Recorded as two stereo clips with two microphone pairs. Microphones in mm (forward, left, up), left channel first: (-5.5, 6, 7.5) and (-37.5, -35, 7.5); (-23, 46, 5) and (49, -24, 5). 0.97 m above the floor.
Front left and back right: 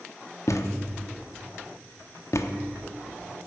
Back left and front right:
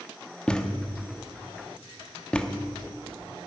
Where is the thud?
55° left, 0.8 m.